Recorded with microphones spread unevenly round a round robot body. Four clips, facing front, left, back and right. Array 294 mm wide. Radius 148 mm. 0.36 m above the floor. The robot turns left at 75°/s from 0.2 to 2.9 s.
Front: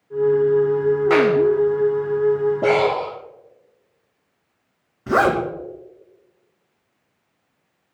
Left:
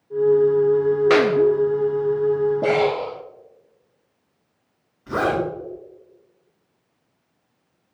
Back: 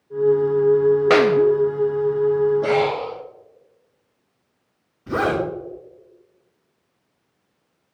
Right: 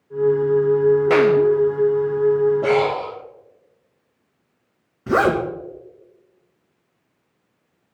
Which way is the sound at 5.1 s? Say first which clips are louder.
Right 4 dB, front 4 dB; 60° right.